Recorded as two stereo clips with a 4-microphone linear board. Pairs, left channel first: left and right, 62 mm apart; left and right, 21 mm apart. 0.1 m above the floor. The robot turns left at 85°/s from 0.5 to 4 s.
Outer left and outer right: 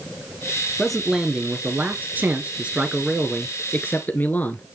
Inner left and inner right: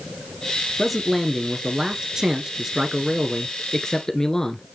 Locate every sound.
0.8 s a man speaking: 5° left (ahead or behind), 1.3 m; by 4.7 s 30° left (ahead or behind), 1.3 m